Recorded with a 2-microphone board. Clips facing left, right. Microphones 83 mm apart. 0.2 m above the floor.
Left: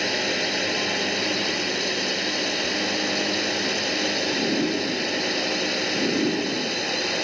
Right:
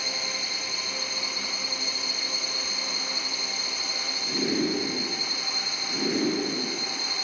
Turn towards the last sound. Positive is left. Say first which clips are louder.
# left 10 dB
turn(degrees=65)  # may be behind; listen again after turning